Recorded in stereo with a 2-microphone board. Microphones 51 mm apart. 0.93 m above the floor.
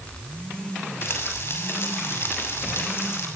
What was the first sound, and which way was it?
Frying, 50° left (ahead or behind).